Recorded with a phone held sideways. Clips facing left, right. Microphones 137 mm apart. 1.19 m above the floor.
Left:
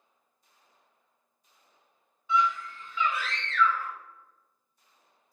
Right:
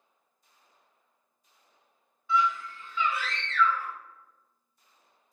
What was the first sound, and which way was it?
A scream, 20° left (ahead or behind).